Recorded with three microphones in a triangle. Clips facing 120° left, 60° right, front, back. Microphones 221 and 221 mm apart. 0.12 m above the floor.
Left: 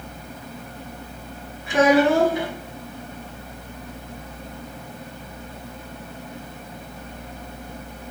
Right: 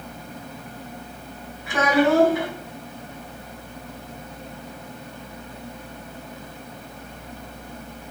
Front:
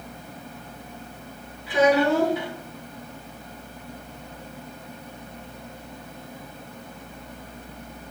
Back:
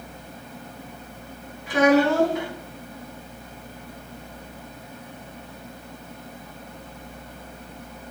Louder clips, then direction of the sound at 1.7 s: Left 3 dB, back 1 dB; straight behind.